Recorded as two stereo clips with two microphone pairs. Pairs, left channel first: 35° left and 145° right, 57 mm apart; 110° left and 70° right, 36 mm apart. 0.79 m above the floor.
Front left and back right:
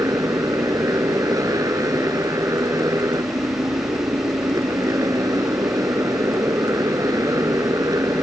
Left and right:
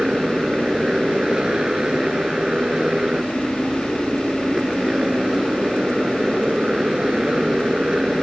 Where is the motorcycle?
135° right.